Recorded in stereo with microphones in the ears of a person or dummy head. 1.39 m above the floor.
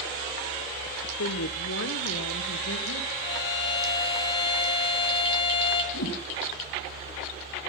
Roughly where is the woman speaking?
Left.